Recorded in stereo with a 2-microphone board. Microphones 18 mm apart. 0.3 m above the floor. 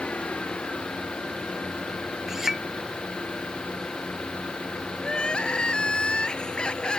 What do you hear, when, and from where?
0.0 s an engine running: 80° left
2.3 s a clink: 20° right (ahead or behind)
5.0 s crying: 50° left (ahead or behind)